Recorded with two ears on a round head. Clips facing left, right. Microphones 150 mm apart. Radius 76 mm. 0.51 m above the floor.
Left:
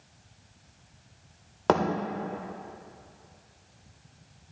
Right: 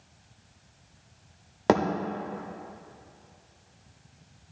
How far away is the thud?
About 0.7 m.